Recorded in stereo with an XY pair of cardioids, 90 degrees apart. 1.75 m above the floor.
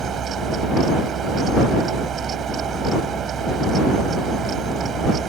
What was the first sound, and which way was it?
A fan, 65° right.